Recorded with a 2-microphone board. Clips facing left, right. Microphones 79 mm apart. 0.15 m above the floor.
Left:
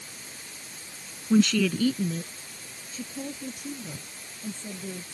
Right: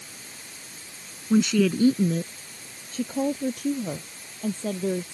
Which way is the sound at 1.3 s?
5° right (ahead or behind).